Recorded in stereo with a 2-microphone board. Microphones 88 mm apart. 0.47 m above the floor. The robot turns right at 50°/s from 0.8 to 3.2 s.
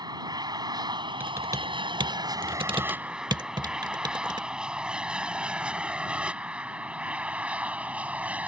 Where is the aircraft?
50° right (ahead or behind); by 8.5 s 15° right (ahead or behind).